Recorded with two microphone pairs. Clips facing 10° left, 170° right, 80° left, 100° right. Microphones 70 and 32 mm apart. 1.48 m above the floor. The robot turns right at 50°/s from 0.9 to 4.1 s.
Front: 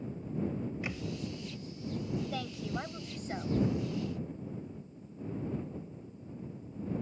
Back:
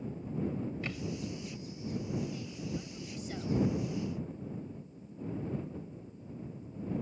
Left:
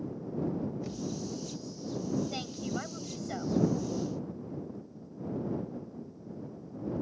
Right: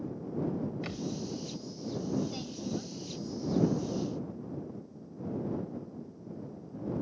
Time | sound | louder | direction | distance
0.8 | a thud | even, even | 65° right | ?
2.3 | a woman speaking | front 3 dB, left 1 dB | 20° left | ?